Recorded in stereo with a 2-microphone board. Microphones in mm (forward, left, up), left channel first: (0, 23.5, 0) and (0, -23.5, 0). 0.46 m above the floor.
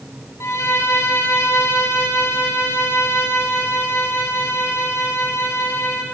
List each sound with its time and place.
0.4 s a violin: 75° left (ahead or behind), 3 m